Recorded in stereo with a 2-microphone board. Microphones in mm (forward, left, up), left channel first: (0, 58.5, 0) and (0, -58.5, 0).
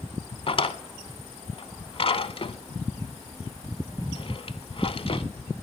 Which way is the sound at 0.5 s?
50° left (ahead or behind).